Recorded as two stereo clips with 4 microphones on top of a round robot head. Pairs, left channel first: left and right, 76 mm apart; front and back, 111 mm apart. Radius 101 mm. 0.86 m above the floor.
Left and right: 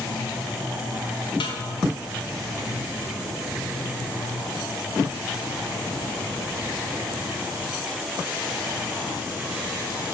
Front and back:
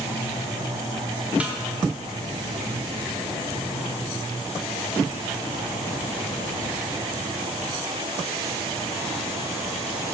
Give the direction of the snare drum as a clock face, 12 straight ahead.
9 o'clock.